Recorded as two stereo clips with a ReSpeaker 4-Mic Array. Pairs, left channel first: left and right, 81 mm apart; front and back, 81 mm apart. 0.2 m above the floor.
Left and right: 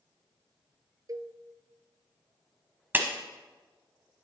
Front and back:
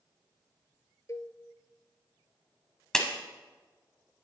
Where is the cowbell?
50° right, 0.5 m.